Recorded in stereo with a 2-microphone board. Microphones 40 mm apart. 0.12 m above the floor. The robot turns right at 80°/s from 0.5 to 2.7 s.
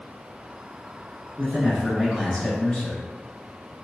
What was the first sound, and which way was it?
A man speaking, 55° right.